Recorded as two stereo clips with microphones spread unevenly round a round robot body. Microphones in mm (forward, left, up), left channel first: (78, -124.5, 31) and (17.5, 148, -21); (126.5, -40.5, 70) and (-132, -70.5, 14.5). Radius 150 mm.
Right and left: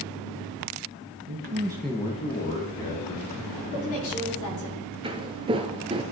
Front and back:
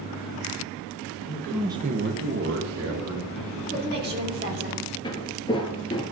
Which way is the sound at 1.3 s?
85° left.